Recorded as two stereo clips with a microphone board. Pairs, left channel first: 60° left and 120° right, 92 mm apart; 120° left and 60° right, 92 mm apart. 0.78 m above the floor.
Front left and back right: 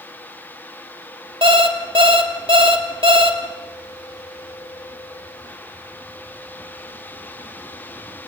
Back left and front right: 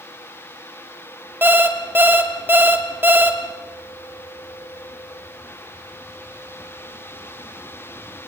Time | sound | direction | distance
1.4 | an alarm clock | 125° right | 2.0 m